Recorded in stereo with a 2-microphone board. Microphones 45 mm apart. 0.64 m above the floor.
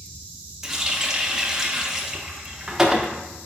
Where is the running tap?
10° right (ahead or behind), 0.6 m.